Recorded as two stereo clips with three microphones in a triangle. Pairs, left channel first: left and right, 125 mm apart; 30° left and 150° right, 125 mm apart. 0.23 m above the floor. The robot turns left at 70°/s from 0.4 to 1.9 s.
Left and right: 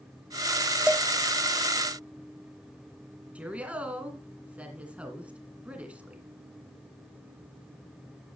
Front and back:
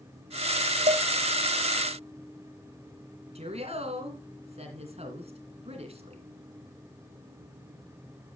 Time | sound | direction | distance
0.9 | dishes clattering | 175° right | 8 m
3.4 | a woman speaking | 170° right | 2.5 m